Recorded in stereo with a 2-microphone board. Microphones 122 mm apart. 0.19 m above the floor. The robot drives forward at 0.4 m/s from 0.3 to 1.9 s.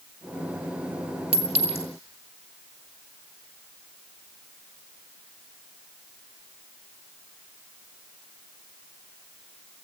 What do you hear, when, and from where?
1.3 s a clink: 60° right (ahead or behind), 2 m